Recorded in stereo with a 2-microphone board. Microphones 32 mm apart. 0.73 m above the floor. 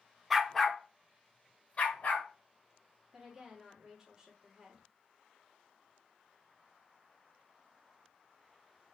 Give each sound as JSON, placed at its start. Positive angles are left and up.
{"t": 0.3, "sound": "a dog barking", "side_deg": -10, "distance_m": 0.5}
{"t": 3.1, "sound": "a woman speaking", "side_deg": -20, "distance_m": 1.6}